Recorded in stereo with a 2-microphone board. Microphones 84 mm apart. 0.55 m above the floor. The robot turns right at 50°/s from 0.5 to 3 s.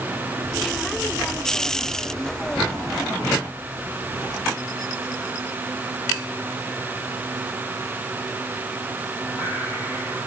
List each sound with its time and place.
Only background noise.